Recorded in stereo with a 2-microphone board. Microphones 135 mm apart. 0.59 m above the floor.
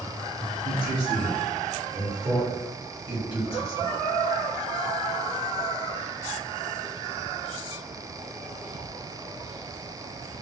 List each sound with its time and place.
0.7 s a man speaking: 30° right (ahead or behind), 0.7 m; by 3.9 s 15° right (ahead or behind), 2.5 m